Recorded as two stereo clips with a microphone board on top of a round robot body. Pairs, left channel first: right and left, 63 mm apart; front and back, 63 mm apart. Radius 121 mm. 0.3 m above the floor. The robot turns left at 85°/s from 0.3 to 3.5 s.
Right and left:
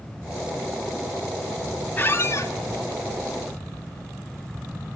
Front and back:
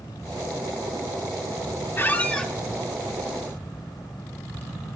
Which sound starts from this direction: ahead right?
A squeak, at 2.0 s.